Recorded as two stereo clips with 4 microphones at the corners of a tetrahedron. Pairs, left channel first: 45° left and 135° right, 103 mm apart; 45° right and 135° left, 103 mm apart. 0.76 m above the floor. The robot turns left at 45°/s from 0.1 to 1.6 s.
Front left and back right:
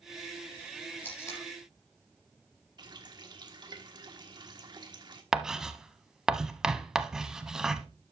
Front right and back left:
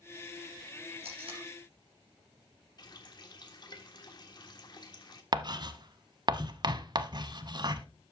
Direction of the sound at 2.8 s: 90° right.